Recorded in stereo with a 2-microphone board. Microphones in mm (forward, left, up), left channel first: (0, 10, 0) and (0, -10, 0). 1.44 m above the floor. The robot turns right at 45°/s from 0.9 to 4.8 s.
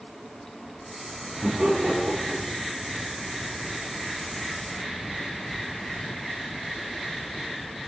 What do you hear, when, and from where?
1.4 s laughter: 80° right, 4.5 m; by 2.6 s 25° right (ahead or behind), 4.5 m